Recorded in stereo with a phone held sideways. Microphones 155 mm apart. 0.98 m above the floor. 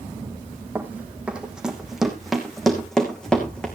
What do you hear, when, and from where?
0.8 s running footsteps: 10° right (ahead or behind), 2 m; by 3.7 s 5° left (ahead or behind), 3 m